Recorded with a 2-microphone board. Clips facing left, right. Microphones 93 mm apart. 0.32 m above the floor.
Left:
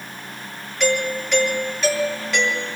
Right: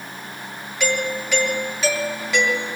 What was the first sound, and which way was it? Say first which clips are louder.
A doorbell: left 2 dB; 5° right (ahead or behind).